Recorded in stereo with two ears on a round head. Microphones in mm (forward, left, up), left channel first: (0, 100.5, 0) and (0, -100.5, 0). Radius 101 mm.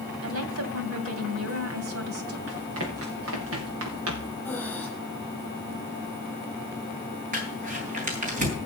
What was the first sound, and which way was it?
A woman speaking, 70° right (ahead or behind).